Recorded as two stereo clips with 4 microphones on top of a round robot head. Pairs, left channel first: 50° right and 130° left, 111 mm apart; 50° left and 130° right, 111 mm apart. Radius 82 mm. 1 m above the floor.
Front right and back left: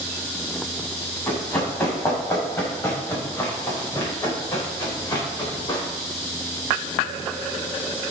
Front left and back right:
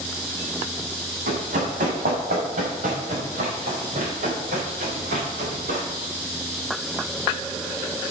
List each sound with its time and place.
1.3 s running footsteps: 120° right, 5 m; by 5.8 s 105° right, 7 m